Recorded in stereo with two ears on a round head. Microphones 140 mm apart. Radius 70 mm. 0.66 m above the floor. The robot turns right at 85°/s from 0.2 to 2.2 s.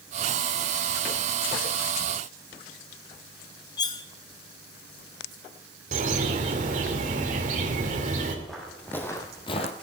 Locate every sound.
3.8 s cutlery clinking: 25° left (ahead or behind), 1.1 m
5.9 s a bird: 50° right (ahead or behind), 2 m
8.4 s footsteps: centre (ahead or behind), 2.5 m; by 9.7 s 45° left (ahead or behind), 1.4 m